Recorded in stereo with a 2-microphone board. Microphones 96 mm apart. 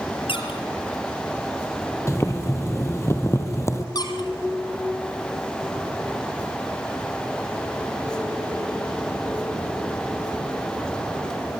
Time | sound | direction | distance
0.3 | a squeak | 70° left (ahead or behind) | 4.5 m
2.1 | boiling | 30° left (ahead or behind) | 1.9 m
4.0 | a squeak | 45° left (ahead or behind) | 3 m